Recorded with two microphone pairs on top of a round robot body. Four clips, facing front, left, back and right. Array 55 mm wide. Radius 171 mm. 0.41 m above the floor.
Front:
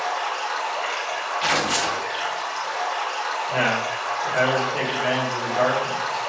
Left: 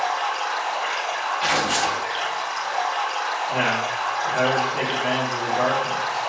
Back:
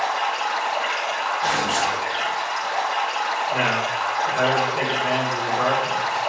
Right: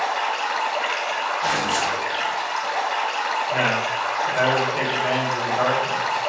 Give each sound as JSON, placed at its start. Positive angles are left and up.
{"t": 0.0, "sound": "running water", "azimuth_deg": -105, "distance_m": 2.5}
{"t": 1.4, "sound": "tearing paper", "azimuth_deg": 40, "distance_m": 1.1}
{"t": 3.5, "sound": "a man speaking", "azimuth_deg": -20, "distance_m": 3.0}